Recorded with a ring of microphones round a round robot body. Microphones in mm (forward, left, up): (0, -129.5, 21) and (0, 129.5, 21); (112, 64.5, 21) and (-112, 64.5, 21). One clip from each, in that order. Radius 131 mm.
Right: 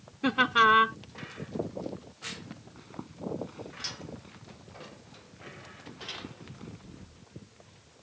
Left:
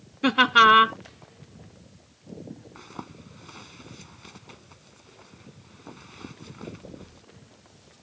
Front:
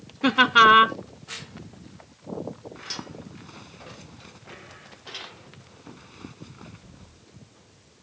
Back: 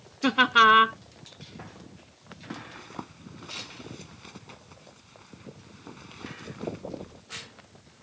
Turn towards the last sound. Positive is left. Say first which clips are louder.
# left 2 dB, front 6 dB
turn(degrees=130)